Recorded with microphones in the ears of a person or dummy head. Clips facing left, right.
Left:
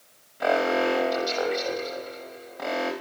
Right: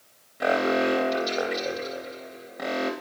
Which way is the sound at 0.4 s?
20° right (ahead or behind).